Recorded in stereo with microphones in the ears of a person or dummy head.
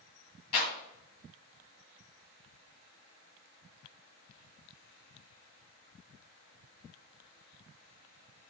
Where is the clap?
30° left (ahead or behind), 2 m.